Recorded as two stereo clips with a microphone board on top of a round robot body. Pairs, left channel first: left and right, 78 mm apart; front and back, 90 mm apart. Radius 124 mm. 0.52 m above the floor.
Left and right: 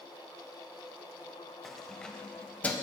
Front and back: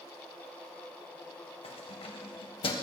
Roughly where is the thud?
I don't hear a thud.